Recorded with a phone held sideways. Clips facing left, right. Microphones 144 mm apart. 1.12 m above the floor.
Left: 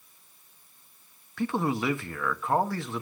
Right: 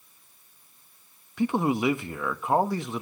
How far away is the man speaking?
About 1.1 m.